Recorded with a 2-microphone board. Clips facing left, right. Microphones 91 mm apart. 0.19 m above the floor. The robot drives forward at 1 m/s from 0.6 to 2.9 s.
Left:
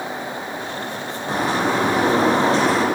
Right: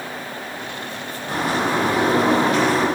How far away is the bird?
About 4.5 m.